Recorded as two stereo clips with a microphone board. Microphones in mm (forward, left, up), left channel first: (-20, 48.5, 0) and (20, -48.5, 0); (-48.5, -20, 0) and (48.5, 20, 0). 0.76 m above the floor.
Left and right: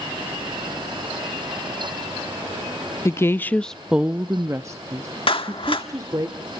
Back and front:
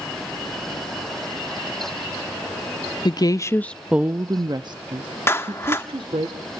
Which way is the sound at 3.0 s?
170° left.